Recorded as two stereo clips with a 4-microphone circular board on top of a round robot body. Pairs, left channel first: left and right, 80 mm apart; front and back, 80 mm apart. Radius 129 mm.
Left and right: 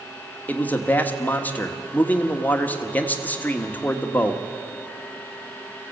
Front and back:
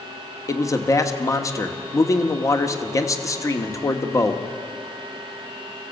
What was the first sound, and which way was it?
A man speaking, 30° left.